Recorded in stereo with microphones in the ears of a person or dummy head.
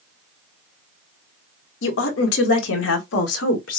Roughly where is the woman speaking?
Left.